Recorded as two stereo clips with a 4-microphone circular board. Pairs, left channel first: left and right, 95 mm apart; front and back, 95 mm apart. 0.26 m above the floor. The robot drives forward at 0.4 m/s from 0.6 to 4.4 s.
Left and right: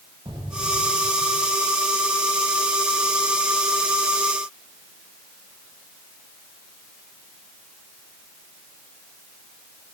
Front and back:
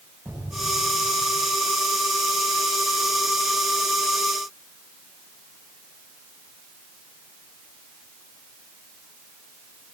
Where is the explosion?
110° right, 7.5 m.